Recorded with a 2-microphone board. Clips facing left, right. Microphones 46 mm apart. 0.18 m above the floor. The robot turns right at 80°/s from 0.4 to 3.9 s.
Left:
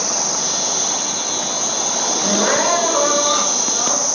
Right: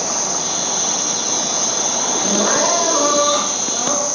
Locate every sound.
0.0 s an insect: 170° right, 1.1 m; by 4.2 s 110° left, 1.1 m
2.2 s crying: 80° left, 1.7 m; by 4.1 s 145° right, 1.7 m